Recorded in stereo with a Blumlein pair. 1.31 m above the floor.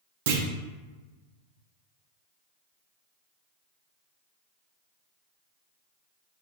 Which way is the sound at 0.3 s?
55° right.